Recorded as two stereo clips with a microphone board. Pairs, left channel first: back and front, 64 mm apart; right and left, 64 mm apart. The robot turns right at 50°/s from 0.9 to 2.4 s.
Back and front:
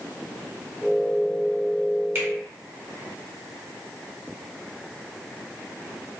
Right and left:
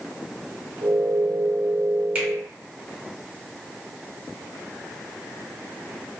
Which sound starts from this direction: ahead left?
A finger snap, at 2.1 s.